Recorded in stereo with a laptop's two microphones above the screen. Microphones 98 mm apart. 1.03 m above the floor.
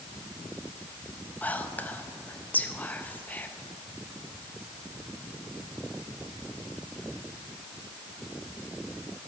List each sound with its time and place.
1.4 s whispering: 20° left (ahead or behind), 0.7 m